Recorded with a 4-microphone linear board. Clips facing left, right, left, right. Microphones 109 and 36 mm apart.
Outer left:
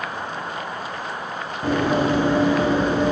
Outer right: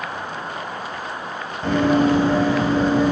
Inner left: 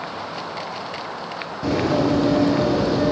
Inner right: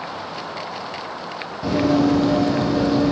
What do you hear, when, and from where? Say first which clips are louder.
1.6 s running footsteps: outer right 3 dB, inner right 2 dB; 10° left (ahead or behind), 1.9 m; by 3.1 s 25° left (ahead or behind), 3.5 m